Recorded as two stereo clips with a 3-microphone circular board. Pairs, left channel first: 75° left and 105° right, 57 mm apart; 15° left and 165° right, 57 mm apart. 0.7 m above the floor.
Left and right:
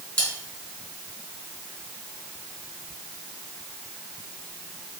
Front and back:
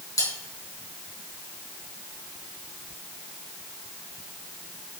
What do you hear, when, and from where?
0.2 s cutlery clinking: 10° left, 3.5 m